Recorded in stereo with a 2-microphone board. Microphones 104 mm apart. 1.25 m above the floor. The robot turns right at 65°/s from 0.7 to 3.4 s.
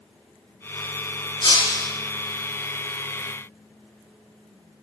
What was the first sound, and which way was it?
Breaking glass, 130° left.